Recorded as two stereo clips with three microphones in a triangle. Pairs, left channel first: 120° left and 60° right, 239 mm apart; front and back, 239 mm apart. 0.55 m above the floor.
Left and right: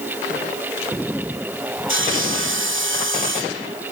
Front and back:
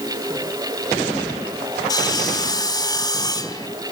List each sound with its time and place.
1.9 s sawing: 70° right, 1.9 m